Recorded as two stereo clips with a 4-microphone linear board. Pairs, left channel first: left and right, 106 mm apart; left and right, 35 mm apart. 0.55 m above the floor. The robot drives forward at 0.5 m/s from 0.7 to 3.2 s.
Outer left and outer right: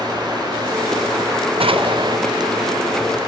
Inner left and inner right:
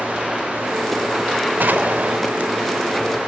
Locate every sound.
1.6 s an explosion: 70° right (ahead or behind), 0.5 m; by 2.2 s 45° right (ahead or behind), 0.7 m